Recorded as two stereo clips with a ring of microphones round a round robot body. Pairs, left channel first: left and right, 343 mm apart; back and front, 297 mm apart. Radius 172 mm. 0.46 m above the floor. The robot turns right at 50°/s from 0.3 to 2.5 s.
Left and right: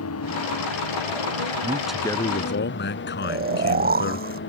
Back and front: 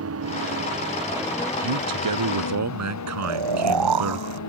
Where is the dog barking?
I don't hear a dog barking.